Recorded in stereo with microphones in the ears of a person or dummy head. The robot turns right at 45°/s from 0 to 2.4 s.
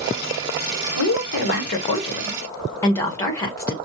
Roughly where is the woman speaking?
Left.